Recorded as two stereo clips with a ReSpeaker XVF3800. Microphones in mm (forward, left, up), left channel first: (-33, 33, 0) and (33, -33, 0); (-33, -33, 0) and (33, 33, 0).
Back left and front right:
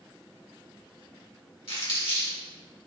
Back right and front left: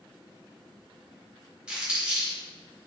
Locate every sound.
1.7 s crumpling: 125° left, 1.5 m